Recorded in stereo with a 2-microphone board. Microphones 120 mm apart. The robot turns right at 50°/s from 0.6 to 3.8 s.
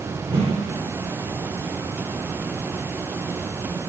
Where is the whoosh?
50° right (ahead or behind), 3 m.